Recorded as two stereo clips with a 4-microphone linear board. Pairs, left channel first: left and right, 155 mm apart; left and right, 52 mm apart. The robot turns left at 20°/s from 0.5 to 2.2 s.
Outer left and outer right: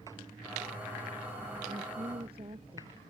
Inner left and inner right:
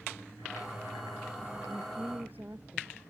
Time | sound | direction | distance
1.7 | a woman speaking | 30° right (ahead or behind) | ?